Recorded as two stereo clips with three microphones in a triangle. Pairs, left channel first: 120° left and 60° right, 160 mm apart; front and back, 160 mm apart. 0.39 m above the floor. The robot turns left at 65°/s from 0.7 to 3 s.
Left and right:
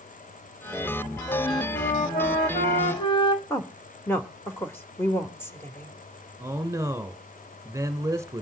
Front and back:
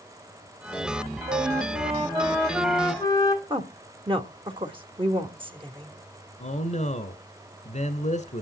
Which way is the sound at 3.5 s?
Straight behind.